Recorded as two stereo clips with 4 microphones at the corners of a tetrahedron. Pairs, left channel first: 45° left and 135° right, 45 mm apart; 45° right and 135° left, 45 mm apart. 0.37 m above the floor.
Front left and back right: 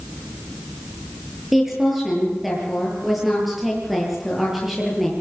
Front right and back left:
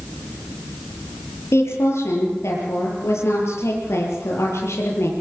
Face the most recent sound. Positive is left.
turn(degrees=-50)